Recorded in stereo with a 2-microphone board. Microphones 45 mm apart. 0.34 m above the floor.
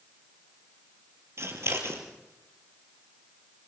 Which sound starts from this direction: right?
Scissors, at 1.4 s.